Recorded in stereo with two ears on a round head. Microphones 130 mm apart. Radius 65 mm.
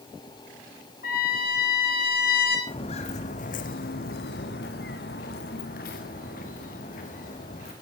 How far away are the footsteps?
About 2.0 m.